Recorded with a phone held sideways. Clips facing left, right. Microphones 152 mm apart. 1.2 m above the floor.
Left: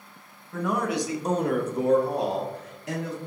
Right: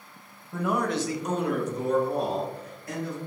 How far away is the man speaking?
About 0.6 m.